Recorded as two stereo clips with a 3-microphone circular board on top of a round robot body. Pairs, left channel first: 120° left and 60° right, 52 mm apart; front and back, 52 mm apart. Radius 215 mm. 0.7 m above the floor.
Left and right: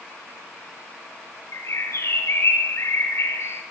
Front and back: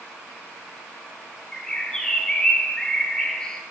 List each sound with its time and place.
1.5 s a bird: 75° left, 1.2 m